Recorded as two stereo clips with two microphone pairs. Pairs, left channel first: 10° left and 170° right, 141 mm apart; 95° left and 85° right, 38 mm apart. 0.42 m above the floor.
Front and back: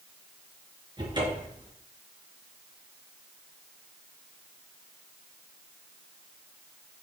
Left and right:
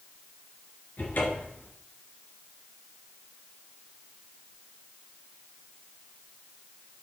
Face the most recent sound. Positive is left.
turn(degrees=130)